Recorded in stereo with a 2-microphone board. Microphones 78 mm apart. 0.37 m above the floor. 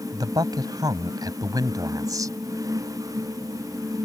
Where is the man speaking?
60° right (ahead or behind); by 2.4 s 50° right (ahead or behind).